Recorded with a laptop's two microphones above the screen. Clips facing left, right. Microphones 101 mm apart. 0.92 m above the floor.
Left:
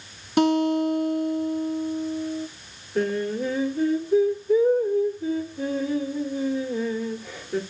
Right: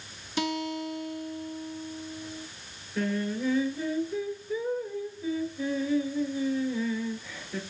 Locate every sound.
0.4 s a guitar: 55° left (ahead or behind), 1.5 m
3.0 s singing: 65° left (ahead or behind), 3 m